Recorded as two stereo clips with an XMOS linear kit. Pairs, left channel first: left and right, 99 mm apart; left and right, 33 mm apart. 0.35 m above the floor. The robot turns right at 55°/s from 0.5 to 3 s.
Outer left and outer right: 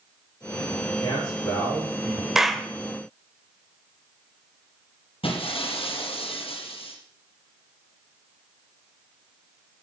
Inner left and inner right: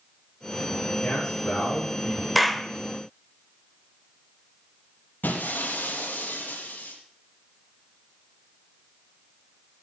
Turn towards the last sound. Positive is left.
turn(degrees=75)  # may be behind; listen again after turning